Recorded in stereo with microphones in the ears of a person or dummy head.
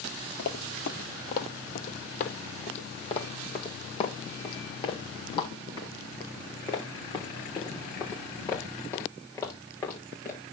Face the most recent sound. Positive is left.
turn(degrees=15)  # may be behind; listen again after turning